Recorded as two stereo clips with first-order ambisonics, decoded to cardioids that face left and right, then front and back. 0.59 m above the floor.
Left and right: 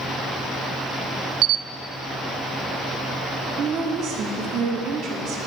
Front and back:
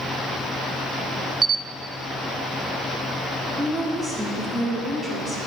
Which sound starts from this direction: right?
A woman speaking, at 3.6 s.